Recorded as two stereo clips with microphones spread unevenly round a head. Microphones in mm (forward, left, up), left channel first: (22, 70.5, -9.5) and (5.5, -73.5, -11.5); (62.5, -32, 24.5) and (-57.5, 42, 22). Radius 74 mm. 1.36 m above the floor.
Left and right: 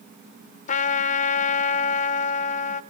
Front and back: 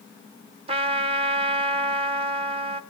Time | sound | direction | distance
0.7 | a trumpet | 105° left | 0.7 m